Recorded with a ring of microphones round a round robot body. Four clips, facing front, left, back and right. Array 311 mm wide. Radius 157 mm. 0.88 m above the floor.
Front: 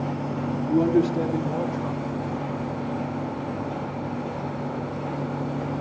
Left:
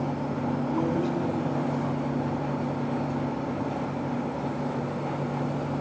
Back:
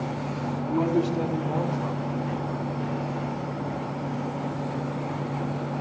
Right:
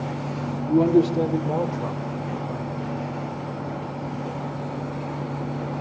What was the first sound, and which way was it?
A man speaking, 60° right.